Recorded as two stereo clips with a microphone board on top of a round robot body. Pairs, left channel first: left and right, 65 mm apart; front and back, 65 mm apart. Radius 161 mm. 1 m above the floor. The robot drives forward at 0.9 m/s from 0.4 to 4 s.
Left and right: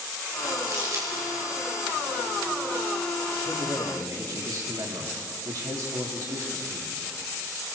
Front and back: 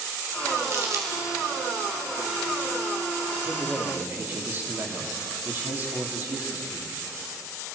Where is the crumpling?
130° right, 3.5 m; by 1.2 s 140° right, 3.5 m.